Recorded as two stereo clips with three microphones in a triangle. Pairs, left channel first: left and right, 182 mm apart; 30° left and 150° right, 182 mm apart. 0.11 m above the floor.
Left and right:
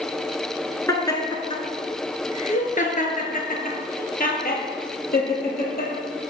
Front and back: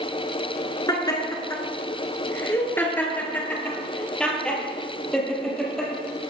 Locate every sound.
0.9 s laughter: 50° left, 1.5 m; by 5.9 s 120° left, 3.5 m